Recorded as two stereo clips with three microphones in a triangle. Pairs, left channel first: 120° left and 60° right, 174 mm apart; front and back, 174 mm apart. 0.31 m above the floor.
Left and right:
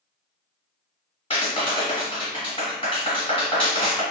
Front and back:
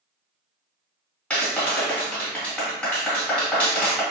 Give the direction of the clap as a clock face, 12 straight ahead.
9 o'clock.